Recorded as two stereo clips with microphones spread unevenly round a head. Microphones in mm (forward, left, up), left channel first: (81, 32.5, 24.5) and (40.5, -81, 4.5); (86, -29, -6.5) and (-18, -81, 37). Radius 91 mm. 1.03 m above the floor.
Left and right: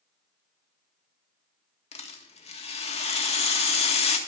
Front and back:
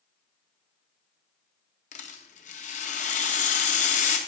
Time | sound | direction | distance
1.9 | a rattle | 35° left | 1.8 m